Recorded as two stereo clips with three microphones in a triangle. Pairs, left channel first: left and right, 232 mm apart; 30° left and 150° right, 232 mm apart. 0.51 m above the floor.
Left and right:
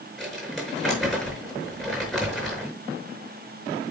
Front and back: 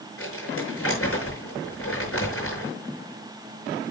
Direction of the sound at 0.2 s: Straight ahead.